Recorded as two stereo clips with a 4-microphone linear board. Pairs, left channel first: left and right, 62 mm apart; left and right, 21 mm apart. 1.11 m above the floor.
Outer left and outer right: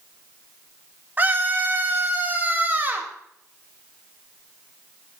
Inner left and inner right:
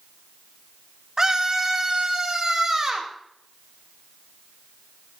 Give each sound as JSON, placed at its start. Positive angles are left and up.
{"t": 1.2, "sound": "a scream", "side_deg": -30, "distance_m": 2.5}